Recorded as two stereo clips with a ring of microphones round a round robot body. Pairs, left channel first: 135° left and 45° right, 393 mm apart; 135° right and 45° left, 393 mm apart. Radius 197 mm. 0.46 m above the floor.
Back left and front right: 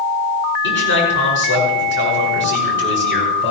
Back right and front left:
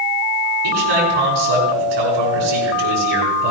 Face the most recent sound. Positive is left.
turn(degrees=75)